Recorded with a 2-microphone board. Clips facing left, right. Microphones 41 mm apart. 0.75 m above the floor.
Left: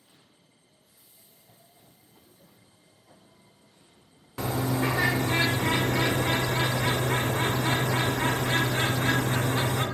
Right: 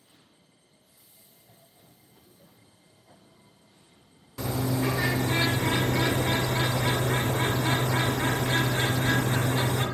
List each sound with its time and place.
4.4 s a bird: 40° left (ahead or behind), 0.8 m